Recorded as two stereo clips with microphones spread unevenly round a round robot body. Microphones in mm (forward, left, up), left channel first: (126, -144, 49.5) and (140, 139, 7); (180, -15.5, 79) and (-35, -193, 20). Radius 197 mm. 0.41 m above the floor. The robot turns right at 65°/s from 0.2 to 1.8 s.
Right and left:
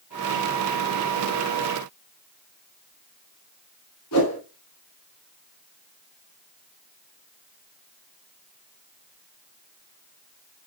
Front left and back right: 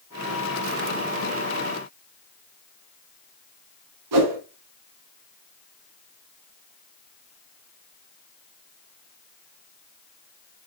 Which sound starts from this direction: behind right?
A whoosh, at 4.1 s.